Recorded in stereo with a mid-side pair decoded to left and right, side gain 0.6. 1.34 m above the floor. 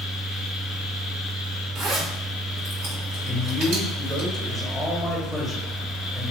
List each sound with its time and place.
0.0 s a fan: 55° left, 0.8 m
1.8 s a zipper: 65° right, 1.5 m
3.2 s a man speaking: 10° right, 1.4 m